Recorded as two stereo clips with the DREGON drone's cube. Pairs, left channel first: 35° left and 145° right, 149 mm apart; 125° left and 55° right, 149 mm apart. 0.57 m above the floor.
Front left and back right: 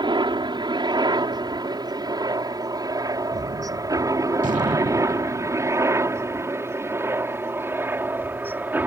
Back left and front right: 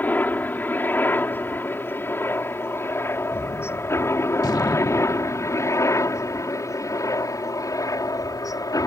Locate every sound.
0.0 s a helicopter: 165° right; by 8.9 s 155° left
3.3 s a gunshot: 175° right